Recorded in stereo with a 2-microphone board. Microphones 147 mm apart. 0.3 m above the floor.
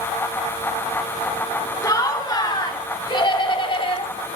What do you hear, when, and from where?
1.8 s laughter: 25° left (ahead or behind), 3 m; by 4.1 s 40° left (ahead or behind), 1.8 m